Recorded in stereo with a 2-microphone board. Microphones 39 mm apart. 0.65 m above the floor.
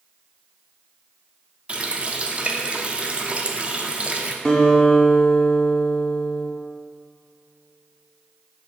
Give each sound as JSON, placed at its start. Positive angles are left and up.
{"t": 1.7, "sound": "a running tap", "side_deg": -30, "distance_m": 0.6}
{"t": 4.5, "sound": "a guitar", "side_deg": 15, "distance_m": 1.3}